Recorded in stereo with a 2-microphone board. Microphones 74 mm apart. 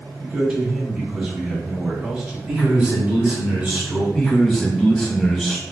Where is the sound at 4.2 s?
5° left (ahead or behind), 1.0 m.